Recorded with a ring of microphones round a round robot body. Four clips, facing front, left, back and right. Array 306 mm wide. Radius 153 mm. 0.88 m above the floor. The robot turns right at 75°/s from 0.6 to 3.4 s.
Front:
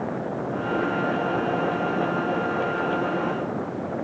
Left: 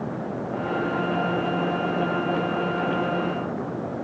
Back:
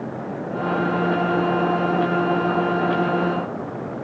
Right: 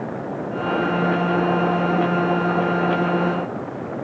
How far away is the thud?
No thud in this recording.